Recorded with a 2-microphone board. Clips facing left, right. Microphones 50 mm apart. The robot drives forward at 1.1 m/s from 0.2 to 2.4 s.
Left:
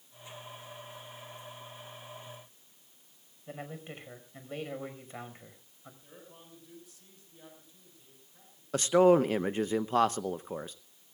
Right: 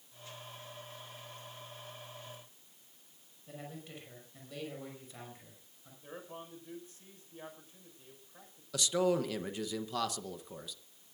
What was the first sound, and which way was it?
A man speaking, 35° left (ahead or behind).